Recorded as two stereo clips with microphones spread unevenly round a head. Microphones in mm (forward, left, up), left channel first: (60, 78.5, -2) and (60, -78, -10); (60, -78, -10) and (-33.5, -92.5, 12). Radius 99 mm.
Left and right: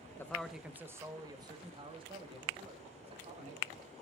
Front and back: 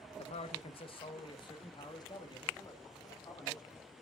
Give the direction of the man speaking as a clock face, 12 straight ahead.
12 o'clock.